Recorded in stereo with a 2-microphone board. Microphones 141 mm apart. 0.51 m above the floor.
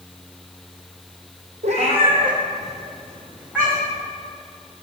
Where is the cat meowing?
55° right (ahead or behind), 1.5 m; by 4.0 s centre (ahead or behind), 3 m.